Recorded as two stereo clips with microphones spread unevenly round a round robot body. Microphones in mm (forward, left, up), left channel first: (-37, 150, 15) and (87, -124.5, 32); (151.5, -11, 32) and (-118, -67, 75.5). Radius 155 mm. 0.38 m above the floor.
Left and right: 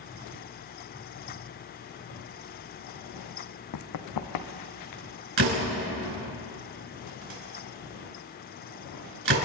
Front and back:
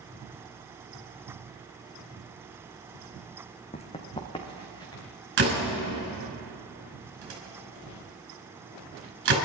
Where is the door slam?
120° right, 4.5 m.